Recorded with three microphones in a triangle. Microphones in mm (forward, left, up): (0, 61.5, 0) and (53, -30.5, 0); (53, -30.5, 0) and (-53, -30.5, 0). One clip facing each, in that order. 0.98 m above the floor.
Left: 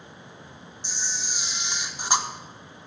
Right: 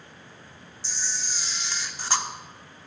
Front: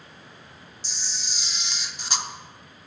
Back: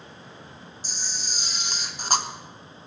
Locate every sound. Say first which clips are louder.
0.8 s a camera shutter: left 1 dB, back 2 dB; straight behind, 0.6 m